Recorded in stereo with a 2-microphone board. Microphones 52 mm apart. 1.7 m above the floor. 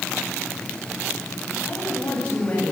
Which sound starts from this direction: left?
A woman speaking, at 1.6 s.